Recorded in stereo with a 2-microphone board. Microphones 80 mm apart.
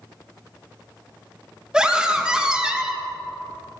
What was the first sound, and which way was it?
A scream, 10° right (ahead or behind).